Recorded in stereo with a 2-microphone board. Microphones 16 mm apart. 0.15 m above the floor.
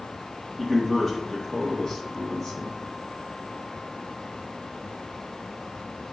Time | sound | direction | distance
0.6 | a man speaking | 15° left (ahead or behind) | 3 m